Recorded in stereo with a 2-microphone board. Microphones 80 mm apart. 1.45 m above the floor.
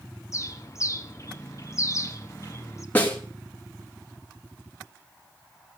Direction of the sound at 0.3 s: 40° left (ahead or behind).